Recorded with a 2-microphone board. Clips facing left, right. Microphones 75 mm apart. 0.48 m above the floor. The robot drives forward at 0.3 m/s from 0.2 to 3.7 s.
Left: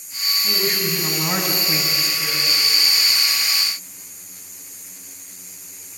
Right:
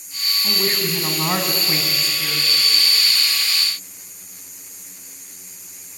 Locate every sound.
0.4 s a woman speaking: 30° right (ahead or behind), 4.5 m; by 2.5 s 25° right (ahead or behind), 5 m